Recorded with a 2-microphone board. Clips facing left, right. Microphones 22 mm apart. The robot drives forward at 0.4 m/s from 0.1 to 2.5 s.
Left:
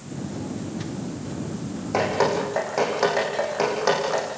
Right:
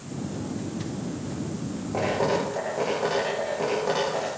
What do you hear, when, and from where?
1.9 s dripping: 80° left, 9.5 m